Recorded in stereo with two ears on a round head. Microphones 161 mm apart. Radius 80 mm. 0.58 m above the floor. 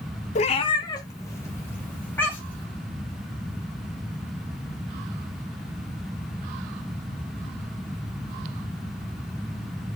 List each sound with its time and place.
0.3 s a cat meowing: 45° left (ahead or behind), 0.5 m; by 2.6 s 10° left (ahead or behind), 2 m